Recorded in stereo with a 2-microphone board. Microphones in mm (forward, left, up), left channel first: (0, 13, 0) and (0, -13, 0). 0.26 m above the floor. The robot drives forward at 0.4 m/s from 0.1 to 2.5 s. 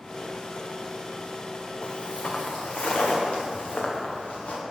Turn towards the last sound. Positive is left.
turn(degrees=70)  # may be behind; listen again after turning